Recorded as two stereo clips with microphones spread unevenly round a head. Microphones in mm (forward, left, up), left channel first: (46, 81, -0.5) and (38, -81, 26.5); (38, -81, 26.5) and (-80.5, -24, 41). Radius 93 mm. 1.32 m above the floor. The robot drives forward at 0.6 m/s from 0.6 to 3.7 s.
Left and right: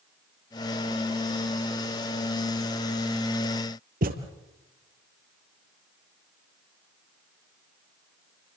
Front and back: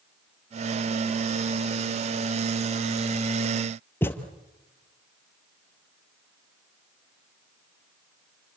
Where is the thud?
100° right, 2.5 m.